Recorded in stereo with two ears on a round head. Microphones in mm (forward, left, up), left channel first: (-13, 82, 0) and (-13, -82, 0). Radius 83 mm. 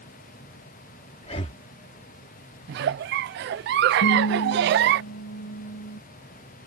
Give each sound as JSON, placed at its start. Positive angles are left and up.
{"t": 1.2, "sound": "breathing", "side_deg": 30}
{"t": 2.7, "sound": "a giggle", "side_deg": -60}
{"t": 4.0, "sound": "a guitar", "side_deg": 85}